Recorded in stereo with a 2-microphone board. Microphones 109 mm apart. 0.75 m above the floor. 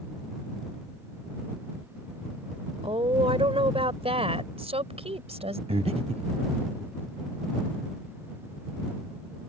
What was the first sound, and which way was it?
A woman speaking, 60° right (ahead or behind).